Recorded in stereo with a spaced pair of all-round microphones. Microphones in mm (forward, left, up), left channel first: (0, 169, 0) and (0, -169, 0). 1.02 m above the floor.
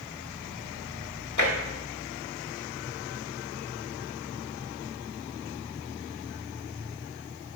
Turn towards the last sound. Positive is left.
turn(degrees=60)  # may be behind; listen again after turning